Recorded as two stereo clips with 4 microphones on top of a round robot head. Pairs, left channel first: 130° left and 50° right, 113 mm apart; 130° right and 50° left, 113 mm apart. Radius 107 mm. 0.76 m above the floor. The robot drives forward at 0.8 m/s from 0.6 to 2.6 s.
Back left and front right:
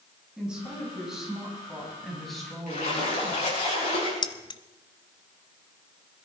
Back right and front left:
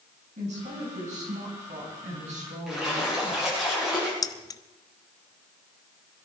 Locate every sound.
0.4 s a woman speaking: 35° left, 6.5 m; by 3.6 s 50° left, 5 m
2.7 s a splash: 135° left, 7.5 m
4.2 s keys jangling: 175° left, 0.7 m